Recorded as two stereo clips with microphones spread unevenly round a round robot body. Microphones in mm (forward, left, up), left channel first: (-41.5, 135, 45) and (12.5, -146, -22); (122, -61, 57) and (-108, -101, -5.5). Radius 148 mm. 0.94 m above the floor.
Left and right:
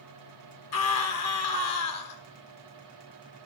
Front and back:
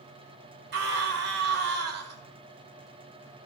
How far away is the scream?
About 2 m.